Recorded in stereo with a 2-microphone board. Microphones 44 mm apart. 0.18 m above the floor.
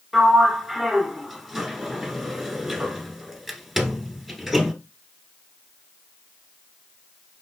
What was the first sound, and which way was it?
A sliding door, 5° right (ahead or behind).